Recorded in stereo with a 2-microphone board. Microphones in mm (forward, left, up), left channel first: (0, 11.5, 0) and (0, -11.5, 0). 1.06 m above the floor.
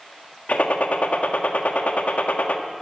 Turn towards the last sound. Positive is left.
turn(degrees=80)